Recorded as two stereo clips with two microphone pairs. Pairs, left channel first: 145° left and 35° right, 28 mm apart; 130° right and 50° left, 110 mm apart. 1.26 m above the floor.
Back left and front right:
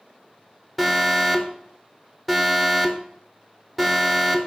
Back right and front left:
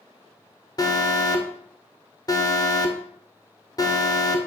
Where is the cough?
I don't hear a cough.